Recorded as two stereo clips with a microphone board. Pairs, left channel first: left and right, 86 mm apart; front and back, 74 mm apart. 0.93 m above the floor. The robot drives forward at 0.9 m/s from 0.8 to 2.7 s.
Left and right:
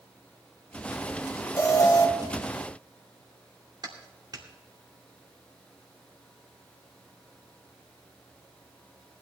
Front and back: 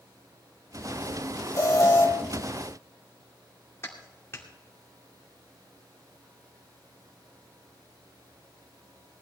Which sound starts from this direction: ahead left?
An alarm, at 1.6 s.